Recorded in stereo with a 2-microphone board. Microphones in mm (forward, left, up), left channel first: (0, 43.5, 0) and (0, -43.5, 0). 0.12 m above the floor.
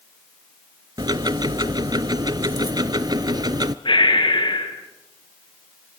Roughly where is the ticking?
Right.